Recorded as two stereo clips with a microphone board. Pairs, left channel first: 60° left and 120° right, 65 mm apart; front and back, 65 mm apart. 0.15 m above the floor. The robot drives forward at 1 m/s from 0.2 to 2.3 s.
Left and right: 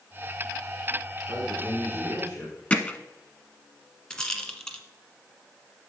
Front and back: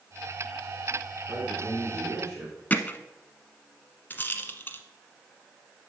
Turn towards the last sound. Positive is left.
turn(degrees=-20)